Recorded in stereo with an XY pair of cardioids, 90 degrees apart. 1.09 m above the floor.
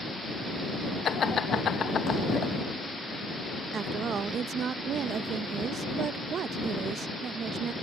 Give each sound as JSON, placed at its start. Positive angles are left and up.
{"t": 1.1, "sound": "laughter", "azimuth_deg": 55}
{"t": 3.7, "sound": "a woman speaking", "azimuth_deg": -70}